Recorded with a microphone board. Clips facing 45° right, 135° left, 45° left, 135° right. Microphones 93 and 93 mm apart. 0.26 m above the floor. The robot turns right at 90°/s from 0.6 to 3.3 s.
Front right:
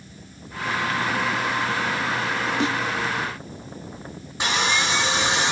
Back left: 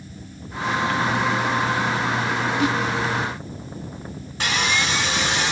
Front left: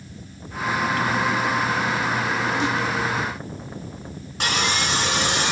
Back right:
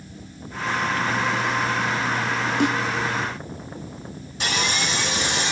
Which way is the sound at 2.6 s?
105° right.